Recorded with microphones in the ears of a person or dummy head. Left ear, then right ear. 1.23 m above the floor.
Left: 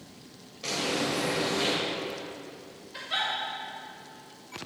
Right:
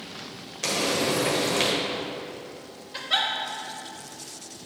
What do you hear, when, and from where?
0.6 s frying: 55° right (ahead or behind), 1.4 m
2.9 s a giggle: 20° right (ahead or behind), 1.1 m